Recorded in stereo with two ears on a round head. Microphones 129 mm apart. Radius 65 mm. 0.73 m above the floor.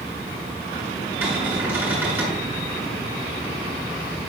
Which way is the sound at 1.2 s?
15° right (ahead or behind).